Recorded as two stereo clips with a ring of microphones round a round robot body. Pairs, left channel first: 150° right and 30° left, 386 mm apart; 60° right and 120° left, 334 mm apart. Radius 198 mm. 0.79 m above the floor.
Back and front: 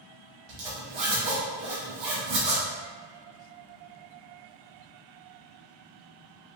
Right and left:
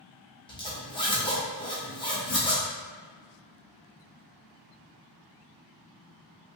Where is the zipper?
15° left, 1.1 m.